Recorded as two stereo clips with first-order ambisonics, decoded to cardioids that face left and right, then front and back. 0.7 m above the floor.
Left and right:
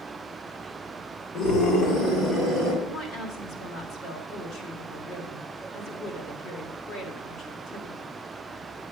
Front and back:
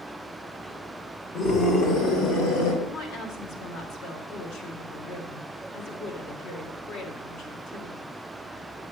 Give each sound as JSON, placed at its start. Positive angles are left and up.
{"t": 1.3, "sound": "a scream", "azimuth_deg": 50, "distance_m": 3.5}
{"t": 2.8, "sound": "a woman speaking", "azimuth_deg": 35, "distance_m": 2.5}